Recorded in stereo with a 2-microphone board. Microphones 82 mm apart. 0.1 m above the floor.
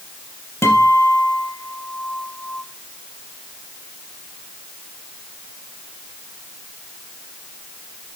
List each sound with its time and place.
0.6 s a guitar: 35° left (ahead or behind), 3 m